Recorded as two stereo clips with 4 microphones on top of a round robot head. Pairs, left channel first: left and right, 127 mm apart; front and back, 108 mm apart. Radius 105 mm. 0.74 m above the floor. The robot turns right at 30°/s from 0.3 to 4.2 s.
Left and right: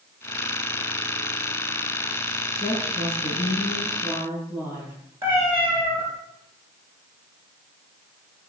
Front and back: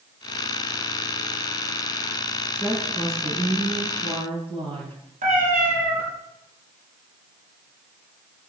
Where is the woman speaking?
105° left, 8.5 m; by 5.0 s 155° left, 8.5 m.